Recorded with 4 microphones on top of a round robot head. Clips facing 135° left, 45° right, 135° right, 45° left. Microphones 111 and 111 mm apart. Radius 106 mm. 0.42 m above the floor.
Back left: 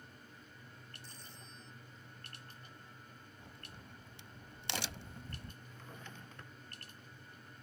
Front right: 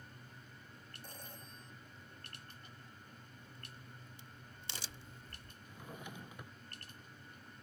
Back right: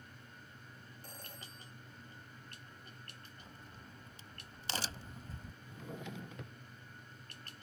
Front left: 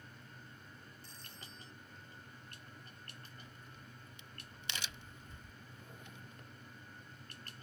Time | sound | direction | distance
1.0 | a phone ringing | 90° right | ?
3.4 | a crack | 165° left | ?
5.6 | a drawer | 125° right | ?